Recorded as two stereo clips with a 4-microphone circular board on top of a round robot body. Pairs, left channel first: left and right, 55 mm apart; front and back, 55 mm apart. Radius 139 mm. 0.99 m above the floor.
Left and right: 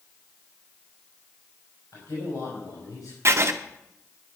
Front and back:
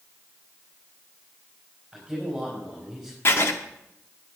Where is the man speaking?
90° left, 4.5 m.